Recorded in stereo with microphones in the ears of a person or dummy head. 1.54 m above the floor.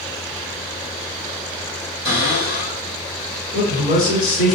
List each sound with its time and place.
2.0 s a cupboard door: 25° left (ahead or behind), 1.7 m
3.5 s a man speaking: 35° left (ahead or behind), 1.5 m